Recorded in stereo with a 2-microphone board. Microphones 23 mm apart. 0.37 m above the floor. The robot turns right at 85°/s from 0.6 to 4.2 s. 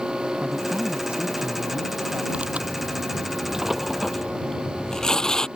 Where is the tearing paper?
130° right; by 5.5 s 25° left.